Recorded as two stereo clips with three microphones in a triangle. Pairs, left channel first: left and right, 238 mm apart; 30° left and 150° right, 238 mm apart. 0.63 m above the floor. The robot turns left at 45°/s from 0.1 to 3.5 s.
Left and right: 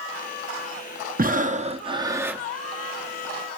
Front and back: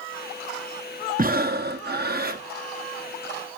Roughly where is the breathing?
Behind right.